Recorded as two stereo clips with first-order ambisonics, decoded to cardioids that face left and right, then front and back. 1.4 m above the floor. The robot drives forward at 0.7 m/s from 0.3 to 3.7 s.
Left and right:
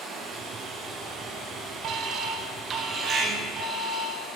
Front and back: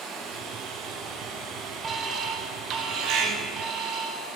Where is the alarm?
115° right, 0.9 m; by 4.2 s 160° right, 1.8 m.